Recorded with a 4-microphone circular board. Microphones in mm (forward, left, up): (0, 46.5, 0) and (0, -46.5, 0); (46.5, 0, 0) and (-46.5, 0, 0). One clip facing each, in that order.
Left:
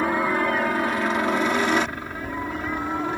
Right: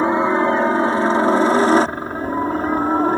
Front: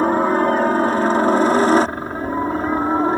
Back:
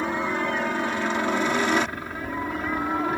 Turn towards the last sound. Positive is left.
turn(degrees=-50)